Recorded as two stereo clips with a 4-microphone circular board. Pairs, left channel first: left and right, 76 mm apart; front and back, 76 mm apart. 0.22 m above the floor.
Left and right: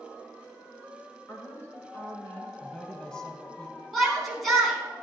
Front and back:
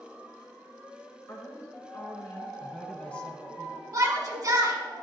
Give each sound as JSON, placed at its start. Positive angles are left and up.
{"t": 1.3, "sound": "a woman speaking", "azimuth_deg": 35, "distance_m": 2.5}
{"t": 2.6, "sound": "a woman speaking", "azimuth_deg": 30, "distance_m": 1.0}
{"t": 3.9, "sound": "a shout", "azimuth_deg": 180, "distance_m": 1.7}